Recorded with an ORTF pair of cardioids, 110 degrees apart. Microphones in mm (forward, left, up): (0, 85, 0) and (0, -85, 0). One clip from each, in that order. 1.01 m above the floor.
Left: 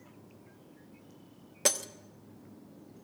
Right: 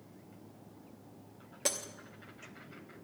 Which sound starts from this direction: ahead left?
Breaking glass, at 1.6 s.